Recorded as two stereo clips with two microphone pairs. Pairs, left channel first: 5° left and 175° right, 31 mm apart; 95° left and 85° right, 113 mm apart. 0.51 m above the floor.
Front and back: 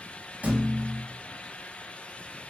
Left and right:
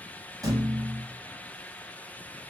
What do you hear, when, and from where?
0.4 s a thud: 140° right, 1.0 m